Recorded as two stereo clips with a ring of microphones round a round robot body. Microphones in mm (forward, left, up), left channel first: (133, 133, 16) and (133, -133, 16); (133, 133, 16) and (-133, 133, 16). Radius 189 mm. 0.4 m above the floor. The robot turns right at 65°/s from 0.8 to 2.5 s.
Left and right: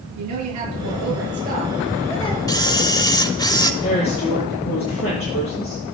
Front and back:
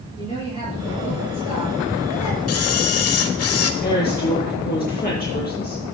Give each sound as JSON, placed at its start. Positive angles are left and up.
{"t": 0.2, "sound": "a woman speaking", "azimuth_deg": -75, "distance_m": 8.0}
{"t": 2.5, "sound": "a camera shutter", "azimuth_deg": 15, "distance_m": 1.3}
{"t": 3.8, "sound": "a woman speaking", "azimuth_deg": 55, "distance_m": 9.5}